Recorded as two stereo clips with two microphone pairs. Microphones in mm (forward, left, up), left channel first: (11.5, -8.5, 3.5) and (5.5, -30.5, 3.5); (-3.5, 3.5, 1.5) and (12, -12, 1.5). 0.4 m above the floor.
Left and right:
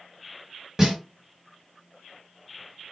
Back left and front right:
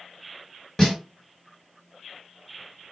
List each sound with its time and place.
0.8 s a snare drum: 170° right, 1.7 m